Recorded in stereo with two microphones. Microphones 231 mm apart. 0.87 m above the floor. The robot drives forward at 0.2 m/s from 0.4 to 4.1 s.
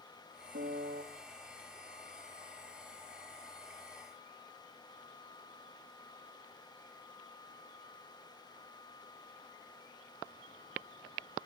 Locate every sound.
0.5 s a piano: 55° right (ahead or behind), 1.0 m; by 1.0 s 50° right (ahead or behind), 1.1 m